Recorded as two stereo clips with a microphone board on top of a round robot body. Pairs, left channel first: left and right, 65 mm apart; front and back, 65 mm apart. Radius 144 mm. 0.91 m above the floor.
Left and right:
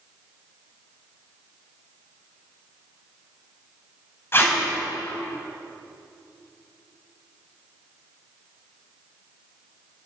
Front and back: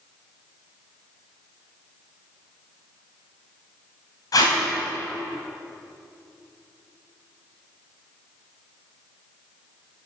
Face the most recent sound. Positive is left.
turn(degrees=35)